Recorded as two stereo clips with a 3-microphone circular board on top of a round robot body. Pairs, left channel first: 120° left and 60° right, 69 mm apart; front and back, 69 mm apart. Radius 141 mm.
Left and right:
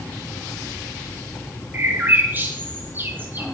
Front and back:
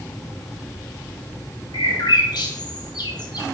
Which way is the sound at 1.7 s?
Straight ahead.